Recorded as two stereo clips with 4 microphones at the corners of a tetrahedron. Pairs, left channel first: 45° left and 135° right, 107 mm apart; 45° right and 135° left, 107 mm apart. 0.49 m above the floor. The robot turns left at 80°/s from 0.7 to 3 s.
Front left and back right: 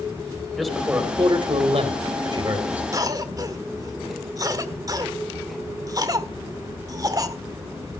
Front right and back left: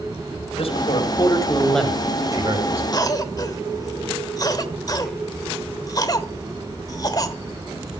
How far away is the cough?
About 1.5 m.